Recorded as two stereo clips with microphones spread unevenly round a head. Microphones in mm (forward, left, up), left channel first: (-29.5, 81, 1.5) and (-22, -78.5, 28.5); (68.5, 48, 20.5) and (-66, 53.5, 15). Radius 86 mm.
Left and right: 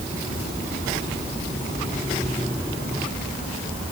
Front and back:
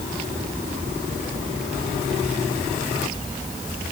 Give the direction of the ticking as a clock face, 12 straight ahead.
I don't hear ticking.